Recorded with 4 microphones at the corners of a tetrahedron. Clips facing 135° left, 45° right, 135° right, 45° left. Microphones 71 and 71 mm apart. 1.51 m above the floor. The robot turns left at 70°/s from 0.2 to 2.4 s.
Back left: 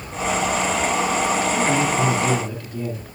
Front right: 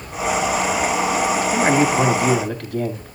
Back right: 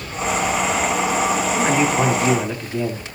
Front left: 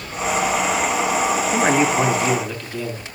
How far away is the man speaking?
About 3 m.